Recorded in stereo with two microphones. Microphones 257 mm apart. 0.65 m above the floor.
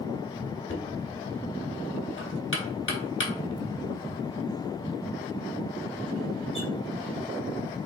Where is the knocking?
50° left (ahead or behind), 1.0 m.